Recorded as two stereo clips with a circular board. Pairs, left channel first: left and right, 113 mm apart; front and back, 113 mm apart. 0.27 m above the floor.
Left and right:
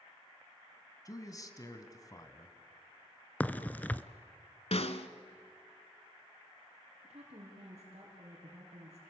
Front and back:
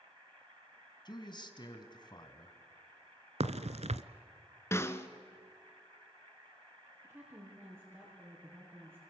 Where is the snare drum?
65° left, 1.1 m.